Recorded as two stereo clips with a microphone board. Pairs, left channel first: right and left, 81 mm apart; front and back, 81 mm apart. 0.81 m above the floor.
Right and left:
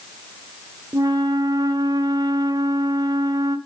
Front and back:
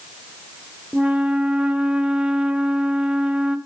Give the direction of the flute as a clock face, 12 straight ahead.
9 o'clock.